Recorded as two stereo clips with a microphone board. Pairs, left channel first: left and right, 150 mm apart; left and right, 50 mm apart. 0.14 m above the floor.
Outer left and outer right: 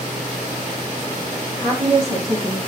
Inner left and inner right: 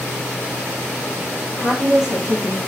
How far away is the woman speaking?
About 5 m.